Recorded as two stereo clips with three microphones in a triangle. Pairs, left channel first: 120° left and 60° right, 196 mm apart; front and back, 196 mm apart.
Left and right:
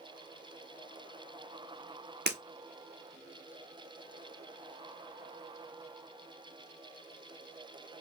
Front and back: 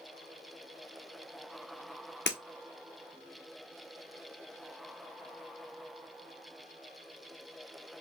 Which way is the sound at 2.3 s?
25° right.